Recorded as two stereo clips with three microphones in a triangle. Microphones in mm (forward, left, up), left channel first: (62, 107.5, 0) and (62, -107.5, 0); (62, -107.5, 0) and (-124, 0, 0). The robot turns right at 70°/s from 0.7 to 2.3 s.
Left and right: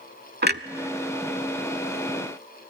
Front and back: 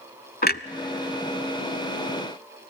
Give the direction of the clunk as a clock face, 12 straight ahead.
2 o'clock.